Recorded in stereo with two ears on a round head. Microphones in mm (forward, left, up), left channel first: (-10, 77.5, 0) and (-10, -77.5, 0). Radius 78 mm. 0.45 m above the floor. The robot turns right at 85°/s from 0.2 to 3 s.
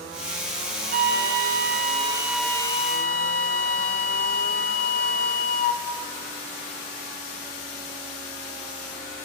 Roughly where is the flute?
Behind right.